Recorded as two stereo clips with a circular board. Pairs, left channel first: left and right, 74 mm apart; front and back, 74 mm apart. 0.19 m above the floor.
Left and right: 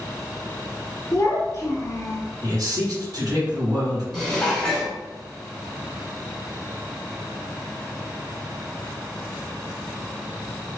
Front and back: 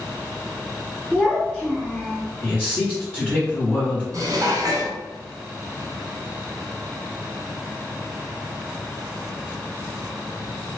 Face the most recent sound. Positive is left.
turn(degrees=170)